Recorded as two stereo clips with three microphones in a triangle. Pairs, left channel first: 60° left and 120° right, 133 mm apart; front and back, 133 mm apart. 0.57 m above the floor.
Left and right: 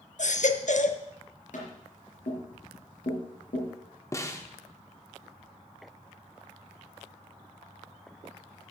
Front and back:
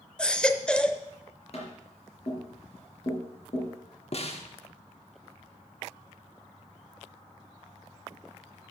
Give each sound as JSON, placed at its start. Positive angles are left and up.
{"t": 0.2, "sound": "a baby crying", "azimuth_deg": 85, "distance_m": 0.7}
{"t": 1.5, "sound": "tapping", "azimuth_deg": 40, "distance_m": 4.0}
{"t": 4.1, "sound": "a snare drum", "azimuth_deg": -5, "distance_m": 1.1}